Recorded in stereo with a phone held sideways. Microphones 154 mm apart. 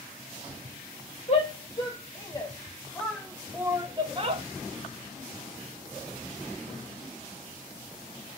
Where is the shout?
40° left (ahead or behind), 1.4 m; by 4.4 s 45° right (ahead or behind), 0.8 m.